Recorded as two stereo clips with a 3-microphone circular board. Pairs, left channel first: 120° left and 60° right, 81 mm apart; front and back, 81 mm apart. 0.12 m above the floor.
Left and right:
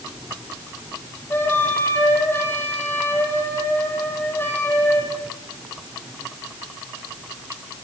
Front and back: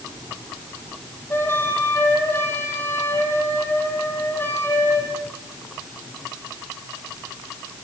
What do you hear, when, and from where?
1.3 s a flute: 60° left, 5 m